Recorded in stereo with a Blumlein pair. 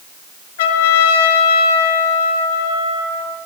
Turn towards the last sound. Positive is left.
turn(degrees=55)